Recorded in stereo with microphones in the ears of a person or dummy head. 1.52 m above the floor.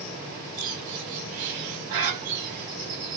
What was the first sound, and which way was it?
A bird, 55° right (ahead or behind).